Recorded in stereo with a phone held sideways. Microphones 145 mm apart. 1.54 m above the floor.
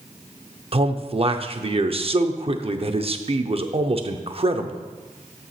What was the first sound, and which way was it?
A man speaking, 45° right (ahead or behind).